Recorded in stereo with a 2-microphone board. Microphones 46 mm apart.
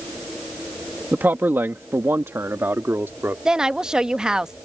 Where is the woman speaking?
15° right (ahead or behind).